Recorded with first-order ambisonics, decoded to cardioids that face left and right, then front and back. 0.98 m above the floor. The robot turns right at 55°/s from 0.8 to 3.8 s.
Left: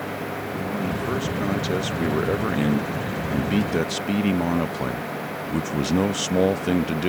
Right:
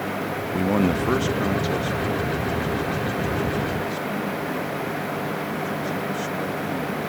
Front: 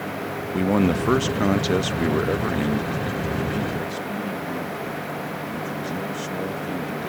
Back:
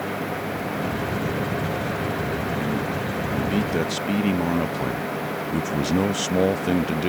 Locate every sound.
0.5 s a man speaking: 35° right; by 7.1 s 130° left